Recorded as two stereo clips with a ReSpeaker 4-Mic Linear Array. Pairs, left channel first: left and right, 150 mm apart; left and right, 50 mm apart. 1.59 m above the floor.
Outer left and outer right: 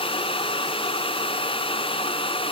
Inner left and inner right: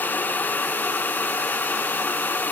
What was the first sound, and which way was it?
Only background noise.